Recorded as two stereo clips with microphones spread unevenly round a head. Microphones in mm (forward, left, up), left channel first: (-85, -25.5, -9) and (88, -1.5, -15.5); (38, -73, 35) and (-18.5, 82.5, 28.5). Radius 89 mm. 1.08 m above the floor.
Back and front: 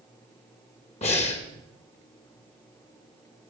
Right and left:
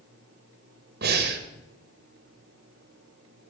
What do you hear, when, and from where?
1.0 s breathing: 130° left, 1.8 m